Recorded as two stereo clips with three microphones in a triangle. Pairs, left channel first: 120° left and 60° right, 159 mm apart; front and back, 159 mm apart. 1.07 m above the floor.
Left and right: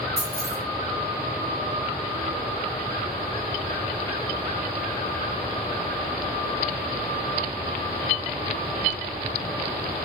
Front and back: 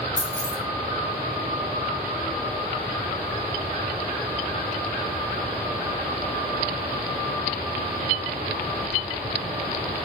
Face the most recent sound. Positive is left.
turn(degrees=35)